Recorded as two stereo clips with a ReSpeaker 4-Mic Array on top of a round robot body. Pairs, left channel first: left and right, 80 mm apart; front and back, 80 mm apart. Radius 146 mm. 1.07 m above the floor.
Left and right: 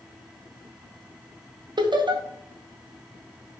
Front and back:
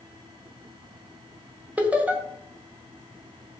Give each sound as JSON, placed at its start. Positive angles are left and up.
{"t": 1.8, "sound": "laughter", "azimuth_deg": -110, "distance_m": 1.2}